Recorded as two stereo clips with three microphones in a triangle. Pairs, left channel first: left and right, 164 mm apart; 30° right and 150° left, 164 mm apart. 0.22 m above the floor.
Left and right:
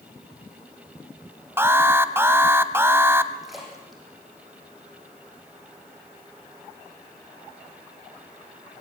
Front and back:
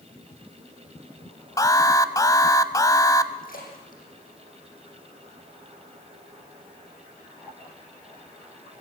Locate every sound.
1.6 s an alarm: 40° right, 0.9 m
3.4 s a splash: straight ahead, 6 m